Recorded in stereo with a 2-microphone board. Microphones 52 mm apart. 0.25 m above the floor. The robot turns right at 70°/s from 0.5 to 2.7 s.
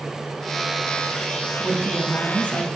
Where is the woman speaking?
15° right, 1.8 m; by 2.7 s 60° left, 1.8 m.